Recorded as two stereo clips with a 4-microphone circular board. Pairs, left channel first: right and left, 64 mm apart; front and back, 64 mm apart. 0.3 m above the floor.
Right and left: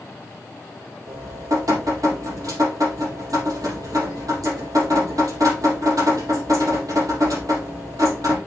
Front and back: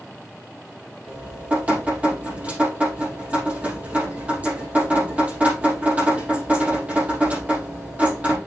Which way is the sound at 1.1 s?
115° left.